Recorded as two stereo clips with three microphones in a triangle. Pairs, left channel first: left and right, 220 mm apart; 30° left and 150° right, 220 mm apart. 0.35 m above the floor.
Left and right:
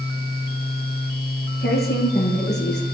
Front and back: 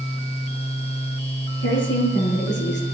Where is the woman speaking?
50° left, 10 m; by 2.9 s 60° left, 9.5 m.